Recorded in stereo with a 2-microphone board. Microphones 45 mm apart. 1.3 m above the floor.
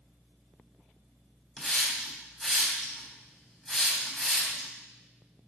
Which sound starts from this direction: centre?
A hiss, at 1.6 s.